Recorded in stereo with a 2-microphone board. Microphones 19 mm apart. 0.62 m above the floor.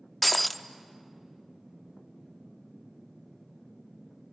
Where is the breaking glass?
5° left (ahead or behind), 0.6 m.